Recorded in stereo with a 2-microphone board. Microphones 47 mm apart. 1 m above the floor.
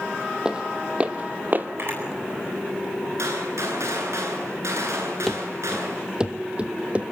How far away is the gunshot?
About 9.5 m.